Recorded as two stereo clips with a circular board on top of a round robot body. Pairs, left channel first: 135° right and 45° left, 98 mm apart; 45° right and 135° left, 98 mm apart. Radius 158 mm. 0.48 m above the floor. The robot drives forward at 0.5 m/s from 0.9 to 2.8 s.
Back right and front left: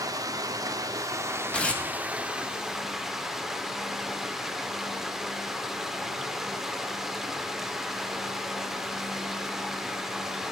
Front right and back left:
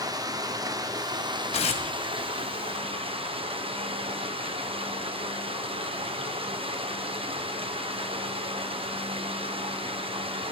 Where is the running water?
90° left, 1.4 m; by 10.5 s 130° left, 1.7 m.